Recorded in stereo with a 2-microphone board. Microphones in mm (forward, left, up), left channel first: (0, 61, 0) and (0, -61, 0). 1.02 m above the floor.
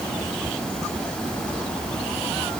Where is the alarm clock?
No alarm clock in this recording.